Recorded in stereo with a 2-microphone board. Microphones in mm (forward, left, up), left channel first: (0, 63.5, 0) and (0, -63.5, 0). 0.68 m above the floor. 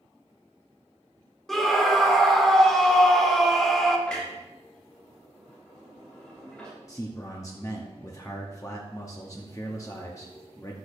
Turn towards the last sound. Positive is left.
turn(degrees=25)  # may be behind; listen again after turning